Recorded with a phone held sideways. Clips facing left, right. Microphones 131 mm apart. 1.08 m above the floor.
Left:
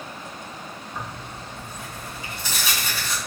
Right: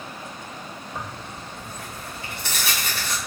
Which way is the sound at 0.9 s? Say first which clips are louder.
Even; 65° right (ahead or behind).